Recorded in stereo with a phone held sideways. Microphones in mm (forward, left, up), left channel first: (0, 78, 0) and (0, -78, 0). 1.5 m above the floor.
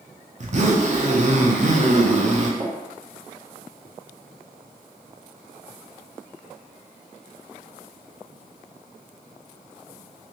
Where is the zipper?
50° right (ahead or behind), 0.5 m.